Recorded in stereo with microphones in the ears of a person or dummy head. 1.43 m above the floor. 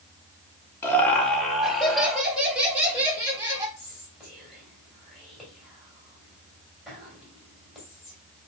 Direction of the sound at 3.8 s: Centre (ahead or behind).